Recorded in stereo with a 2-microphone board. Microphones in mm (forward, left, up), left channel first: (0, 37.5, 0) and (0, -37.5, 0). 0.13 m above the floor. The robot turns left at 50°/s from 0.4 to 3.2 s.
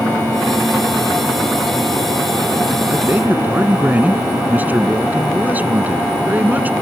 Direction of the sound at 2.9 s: 20° right (ahead or behind).